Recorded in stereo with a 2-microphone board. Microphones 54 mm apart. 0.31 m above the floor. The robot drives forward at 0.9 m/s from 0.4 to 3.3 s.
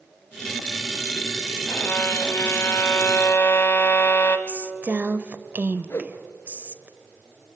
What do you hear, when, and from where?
1.7 s a violin: 45° left (ahead or behind), 1.6 m
4.5 s a woman speaking: 30° right (ahead or behind), 0.9 m
5.9 s a whoosh: 50° left (ahead or behind), 1.3 m